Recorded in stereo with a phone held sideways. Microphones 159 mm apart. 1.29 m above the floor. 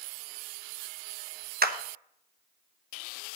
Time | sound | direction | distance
1.6 | a clap | 75° right (ahead or behind) | 1.0 m